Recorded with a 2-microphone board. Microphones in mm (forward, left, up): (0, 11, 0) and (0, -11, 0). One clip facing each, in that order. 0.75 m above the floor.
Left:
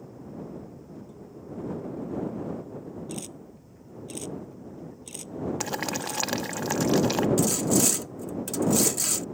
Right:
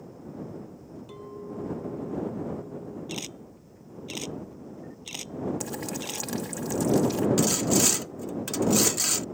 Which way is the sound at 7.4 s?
30° right (ahead or behind).